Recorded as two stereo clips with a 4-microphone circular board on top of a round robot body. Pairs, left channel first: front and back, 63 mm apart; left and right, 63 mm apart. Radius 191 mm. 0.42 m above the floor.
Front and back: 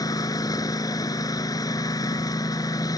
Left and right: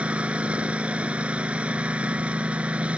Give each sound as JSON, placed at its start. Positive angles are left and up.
{"t": 0.0, "sound": "a lawn mower", "azimuth_deg": -20}